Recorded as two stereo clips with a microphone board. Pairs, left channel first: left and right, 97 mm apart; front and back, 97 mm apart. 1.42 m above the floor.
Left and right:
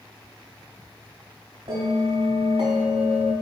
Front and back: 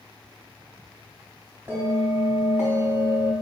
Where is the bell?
105° right, 3.5 m.